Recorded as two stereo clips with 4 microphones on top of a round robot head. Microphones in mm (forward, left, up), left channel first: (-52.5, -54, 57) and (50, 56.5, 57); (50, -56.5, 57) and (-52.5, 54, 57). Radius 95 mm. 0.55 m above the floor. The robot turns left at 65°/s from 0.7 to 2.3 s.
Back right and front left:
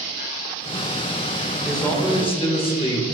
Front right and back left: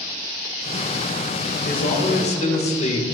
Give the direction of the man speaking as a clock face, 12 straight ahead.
1 o'clock.